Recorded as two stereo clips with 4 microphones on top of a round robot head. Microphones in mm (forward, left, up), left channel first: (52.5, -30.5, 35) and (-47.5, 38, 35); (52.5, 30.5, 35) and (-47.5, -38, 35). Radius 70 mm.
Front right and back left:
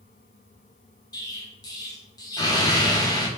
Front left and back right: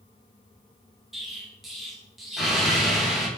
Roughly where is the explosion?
Ahead right.